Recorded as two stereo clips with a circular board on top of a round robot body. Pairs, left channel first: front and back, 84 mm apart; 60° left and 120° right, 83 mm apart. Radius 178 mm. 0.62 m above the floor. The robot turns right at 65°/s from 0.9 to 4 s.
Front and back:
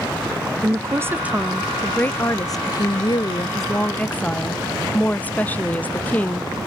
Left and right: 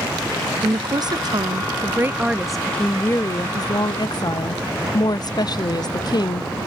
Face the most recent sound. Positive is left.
turn(degrees=65)